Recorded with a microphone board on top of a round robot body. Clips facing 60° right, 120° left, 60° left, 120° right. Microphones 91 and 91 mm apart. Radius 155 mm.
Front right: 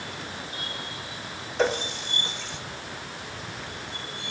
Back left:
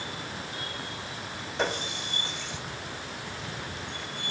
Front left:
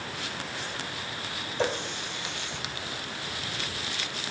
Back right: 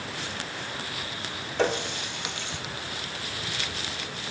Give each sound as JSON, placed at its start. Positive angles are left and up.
{"t": 1.6, "sound": "a running tap", "azimuth_deg": -150, "distance_m": 2.0}